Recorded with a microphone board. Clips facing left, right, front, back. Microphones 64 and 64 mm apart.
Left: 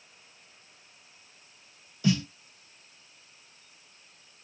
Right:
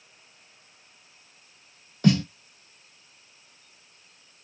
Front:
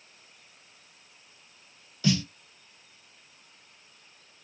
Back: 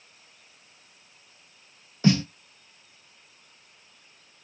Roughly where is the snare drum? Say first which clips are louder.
Right 5 dB, back 5 dB; behind right.